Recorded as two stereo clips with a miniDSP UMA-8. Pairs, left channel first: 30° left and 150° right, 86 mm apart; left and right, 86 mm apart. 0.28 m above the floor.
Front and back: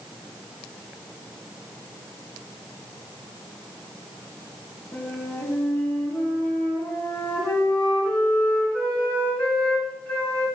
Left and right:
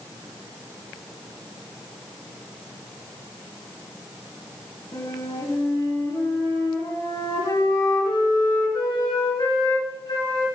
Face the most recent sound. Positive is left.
turn(degrees=100)